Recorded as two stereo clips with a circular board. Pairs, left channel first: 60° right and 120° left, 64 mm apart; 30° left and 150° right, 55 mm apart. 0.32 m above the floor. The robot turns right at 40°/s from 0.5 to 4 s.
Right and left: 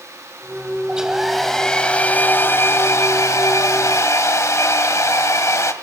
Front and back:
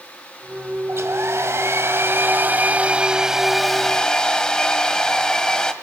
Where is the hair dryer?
170° right, 1.8 m; by 5.7 s 45° right, 1.8 m.